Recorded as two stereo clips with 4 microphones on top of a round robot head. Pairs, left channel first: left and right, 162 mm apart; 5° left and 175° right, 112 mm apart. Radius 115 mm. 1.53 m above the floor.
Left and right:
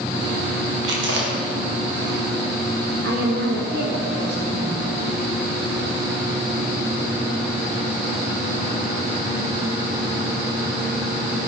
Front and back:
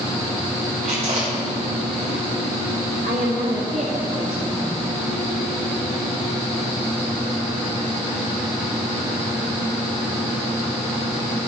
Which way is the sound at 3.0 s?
130° right.